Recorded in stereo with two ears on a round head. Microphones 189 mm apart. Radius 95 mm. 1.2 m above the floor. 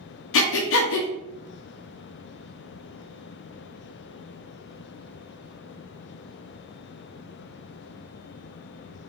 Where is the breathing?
60° left (ahead or behind), 0.7 m.